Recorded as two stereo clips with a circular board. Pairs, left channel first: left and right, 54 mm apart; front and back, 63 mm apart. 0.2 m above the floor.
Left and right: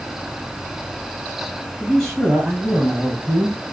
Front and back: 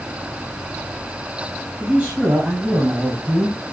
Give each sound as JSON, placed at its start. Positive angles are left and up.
{"t": 1.8, "sound": "a man speaking", "azimuth_deg": 150, "distance_m": 1.7}